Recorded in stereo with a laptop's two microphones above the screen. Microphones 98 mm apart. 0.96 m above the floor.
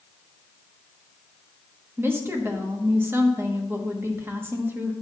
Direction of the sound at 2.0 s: 20° right (ahead or behind).